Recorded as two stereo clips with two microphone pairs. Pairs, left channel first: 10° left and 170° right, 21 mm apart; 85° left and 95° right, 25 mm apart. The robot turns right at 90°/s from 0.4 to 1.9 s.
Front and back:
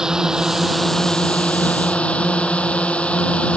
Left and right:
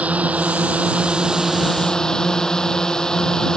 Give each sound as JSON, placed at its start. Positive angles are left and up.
{"t": 0.0, "sound": "a drone", "azimuth_deg": -110}